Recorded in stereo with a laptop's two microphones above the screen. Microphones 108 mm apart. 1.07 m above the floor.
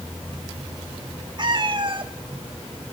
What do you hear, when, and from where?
1.4 s a cat meowing: 45° right (ahead or behind), 1.3 m